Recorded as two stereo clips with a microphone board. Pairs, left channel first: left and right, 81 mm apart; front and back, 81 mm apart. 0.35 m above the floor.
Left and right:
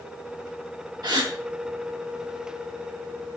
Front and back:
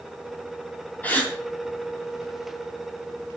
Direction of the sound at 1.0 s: 65° right.